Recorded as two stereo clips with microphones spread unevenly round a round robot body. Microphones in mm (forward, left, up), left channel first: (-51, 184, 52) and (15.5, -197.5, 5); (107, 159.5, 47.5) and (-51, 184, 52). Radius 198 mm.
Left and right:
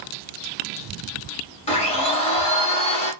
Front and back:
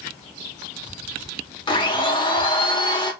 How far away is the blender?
About 1.5 m.